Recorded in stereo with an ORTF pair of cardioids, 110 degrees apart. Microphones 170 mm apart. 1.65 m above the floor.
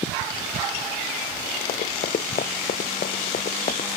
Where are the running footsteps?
60° left.